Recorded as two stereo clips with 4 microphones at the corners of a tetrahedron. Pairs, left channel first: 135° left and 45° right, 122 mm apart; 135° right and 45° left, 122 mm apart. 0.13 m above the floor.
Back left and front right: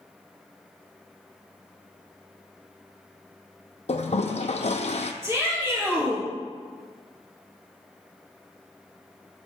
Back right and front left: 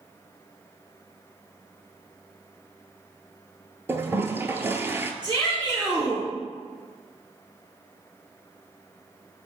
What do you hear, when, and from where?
3.9 s a toilet flushing: 115° left, 0.5 m
5.2 s a shout: 15° left, 2 m